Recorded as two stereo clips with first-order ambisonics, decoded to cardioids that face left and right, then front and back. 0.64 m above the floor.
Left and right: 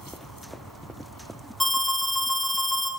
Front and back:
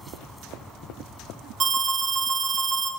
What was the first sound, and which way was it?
An alarm, 170° left.